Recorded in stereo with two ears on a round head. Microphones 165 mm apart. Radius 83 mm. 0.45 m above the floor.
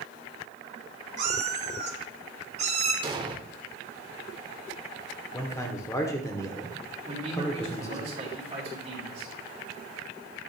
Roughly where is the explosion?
Right.